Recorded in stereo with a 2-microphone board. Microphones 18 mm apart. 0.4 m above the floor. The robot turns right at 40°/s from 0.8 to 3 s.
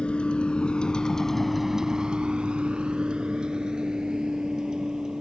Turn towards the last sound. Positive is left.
turn(degrees=-40)  # may be behind; listen again after turning